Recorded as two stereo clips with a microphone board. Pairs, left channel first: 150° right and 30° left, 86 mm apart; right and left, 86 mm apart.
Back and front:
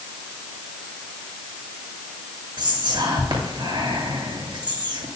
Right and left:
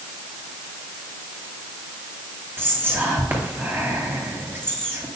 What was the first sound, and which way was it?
Whispering, 30° left.